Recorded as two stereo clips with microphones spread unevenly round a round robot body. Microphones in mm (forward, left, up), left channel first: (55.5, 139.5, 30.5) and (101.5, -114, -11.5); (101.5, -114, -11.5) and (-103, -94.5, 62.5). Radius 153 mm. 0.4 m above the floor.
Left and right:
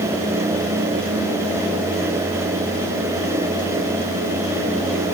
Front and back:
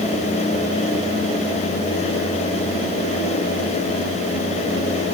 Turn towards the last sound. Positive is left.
No sound to turn to.